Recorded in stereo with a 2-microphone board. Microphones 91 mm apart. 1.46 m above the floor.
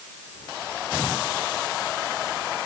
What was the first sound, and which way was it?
Only background noise.